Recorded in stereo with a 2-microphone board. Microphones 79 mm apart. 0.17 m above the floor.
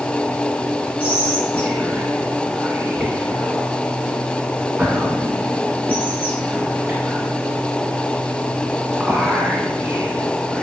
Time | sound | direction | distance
1.0 | whispering | 15° right (ahead or behind) | 1.4 m